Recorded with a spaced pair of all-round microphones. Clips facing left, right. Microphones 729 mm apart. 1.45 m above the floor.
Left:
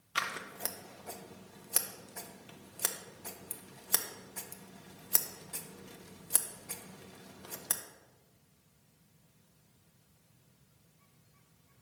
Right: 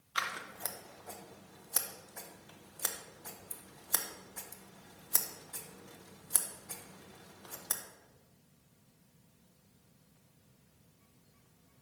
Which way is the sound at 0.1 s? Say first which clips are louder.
Left 3 dB; 55° left (ahead or behind).